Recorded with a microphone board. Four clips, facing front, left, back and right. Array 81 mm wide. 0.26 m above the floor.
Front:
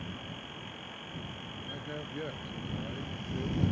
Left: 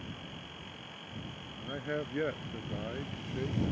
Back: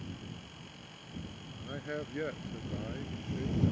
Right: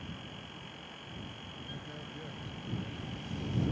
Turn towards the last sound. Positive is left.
turn(degrees=90)